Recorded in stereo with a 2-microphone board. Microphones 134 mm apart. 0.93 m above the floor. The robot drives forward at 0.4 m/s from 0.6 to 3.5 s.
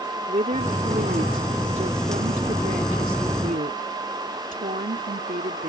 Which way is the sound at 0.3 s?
60° right (ahead or behind).